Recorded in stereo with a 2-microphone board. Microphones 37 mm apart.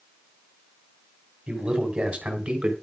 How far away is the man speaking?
About 4 m.